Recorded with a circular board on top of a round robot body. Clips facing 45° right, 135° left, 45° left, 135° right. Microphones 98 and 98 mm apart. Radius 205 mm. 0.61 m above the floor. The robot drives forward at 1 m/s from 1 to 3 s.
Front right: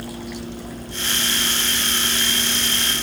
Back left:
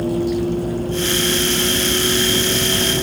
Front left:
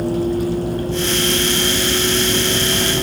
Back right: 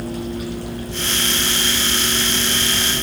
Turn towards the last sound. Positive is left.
turn(degrees=95)